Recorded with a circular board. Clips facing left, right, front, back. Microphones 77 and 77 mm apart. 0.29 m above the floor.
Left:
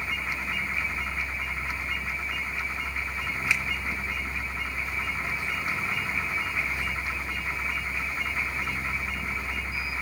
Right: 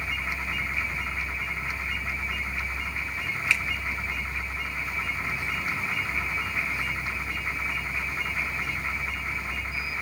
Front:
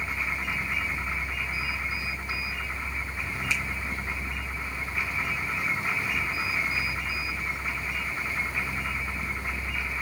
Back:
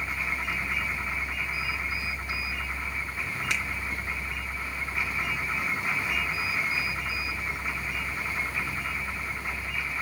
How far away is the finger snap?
About 2.5 m.